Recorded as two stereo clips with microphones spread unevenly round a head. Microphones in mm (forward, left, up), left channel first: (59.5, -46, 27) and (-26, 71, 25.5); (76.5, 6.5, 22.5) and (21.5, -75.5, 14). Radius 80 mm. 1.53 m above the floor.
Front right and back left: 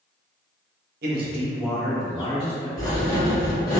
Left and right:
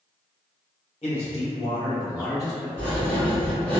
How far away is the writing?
About 1.4 m.